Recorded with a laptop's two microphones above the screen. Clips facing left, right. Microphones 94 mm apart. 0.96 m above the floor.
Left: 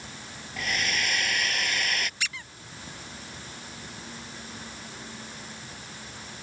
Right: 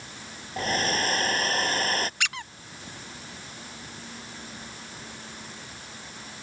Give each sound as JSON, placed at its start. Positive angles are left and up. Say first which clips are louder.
{"t": 0.6, "sound": "a hair dryer", "louder": "right 4 dB", "side_deg": -35}
{"t": 2.2, "sound": "a squeak", "louder": "right 4 dB", "side_deg": -60}